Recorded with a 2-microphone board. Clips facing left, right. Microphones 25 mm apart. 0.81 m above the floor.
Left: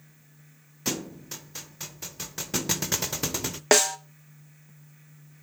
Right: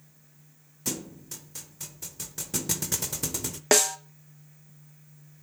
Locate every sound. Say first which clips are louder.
0.8 s a thud: left 3 dB; 25° left (ahead or behind), 0.6 m
3.7 s a snare drum: left 2 dB; 10° left (ahead or behind), 0.7 m